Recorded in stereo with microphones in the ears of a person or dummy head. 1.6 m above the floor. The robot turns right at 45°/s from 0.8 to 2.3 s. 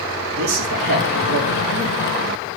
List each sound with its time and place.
0.3 s a man speaking: 100° right, 4.5 m; by 2.0 s 45° right, 4.5 m